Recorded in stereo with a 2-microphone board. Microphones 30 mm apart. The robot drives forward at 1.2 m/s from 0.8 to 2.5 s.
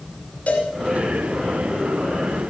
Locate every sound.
0.5 s a cowbell: 50° left (ahead or behind), 3 m